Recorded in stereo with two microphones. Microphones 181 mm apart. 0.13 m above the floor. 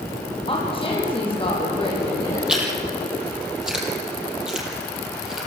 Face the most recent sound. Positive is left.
turn(degrees=-5)  # may be behind; listen again after turning